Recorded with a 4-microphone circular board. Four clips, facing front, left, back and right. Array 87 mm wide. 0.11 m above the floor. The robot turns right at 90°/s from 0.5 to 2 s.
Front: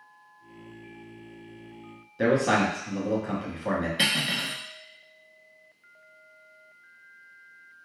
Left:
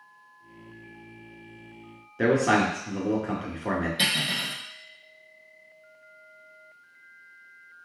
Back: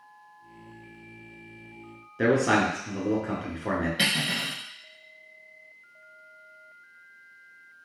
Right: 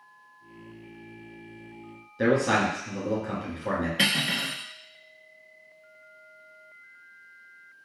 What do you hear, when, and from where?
2.2 s a man speaking: 125° left, 1.1 m
4.0 s cutlery clinking: 85° right, 0.9 m